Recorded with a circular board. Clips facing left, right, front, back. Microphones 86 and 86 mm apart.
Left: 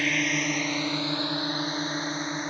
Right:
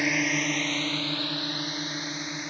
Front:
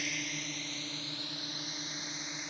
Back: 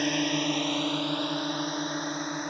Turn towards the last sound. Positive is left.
turn(degrees=140)